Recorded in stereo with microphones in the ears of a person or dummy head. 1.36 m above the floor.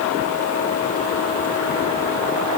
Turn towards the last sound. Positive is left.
No sound to turn to.